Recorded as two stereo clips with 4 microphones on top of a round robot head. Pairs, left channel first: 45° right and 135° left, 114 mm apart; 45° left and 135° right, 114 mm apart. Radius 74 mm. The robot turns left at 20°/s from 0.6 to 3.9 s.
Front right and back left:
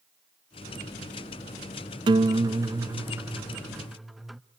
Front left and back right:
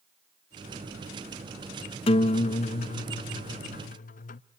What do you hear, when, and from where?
2.1 s a guitar: 85° left, 0.6 m; by 4.4 s 50° left, 0.6 m